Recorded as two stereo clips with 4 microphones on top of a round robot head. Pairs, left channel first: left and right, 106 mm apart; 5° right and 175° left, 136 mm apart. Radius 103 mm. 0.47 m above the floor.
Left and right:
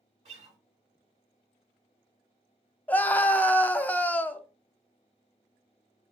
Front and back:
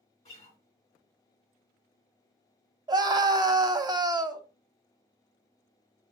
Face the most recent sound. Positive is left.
turn(degrees=155)